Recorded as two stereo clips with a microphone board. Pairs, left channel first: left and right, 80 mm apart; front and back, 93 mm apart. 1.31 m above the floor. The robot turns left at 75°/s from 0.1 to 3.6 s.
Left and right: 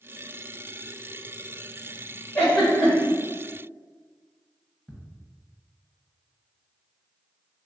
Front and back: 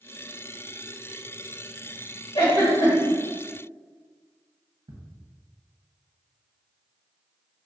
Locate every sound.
2.4 s a giggle: 20° left, 2.0 m; by 3.2 s 40° right, 2.0 m
4.9 s ticking: straight behind, 1.0 m